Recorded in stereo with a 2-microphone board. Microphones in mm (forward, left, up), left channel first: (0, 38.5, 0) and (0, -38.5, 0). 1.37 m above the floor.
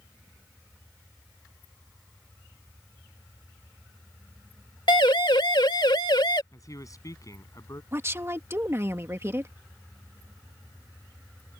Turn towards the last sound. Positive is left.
turn(degrees=-35)  # may be behind; listen again after turning